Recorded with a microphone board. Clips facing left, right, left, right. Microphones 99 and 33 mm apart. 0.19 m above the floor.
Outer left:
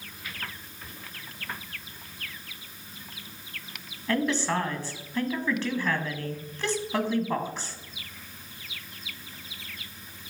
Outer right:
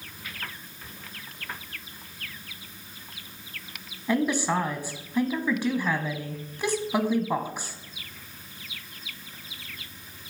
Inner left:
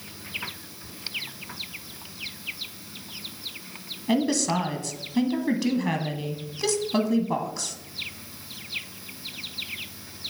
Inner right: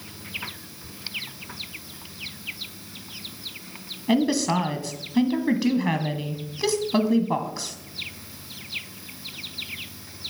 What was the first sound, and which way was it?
A woman speaking, 15° right (ahead or behind).